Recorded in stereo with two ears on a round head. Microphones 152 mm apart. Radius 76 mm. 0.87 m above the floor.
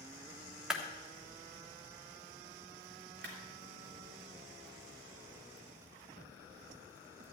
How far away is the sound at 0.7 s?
About 1.4 m.